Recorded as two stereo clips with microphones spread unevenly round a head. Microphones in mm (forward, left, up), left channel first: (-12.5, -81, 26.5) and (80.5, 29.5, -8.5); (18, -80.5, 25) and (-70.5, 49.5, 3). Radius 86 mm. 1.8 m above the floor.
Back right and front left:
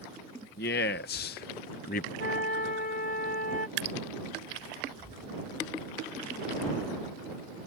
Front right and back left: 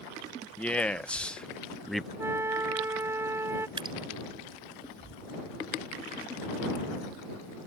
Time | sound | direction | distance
0.6 | a man speaking | 135° right | ?
2.2 | a flute | 160° right | ?
3.8 | dripping | 60° left | ?